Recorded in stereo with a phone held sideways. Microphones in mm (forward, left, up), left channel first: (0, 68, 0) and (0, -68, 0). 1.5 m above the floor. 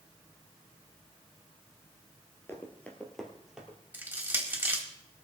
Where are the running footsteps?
20° left (ahead or behind), 2 m; by 3.8 s 5° right (ahead or behind), 2.5 m.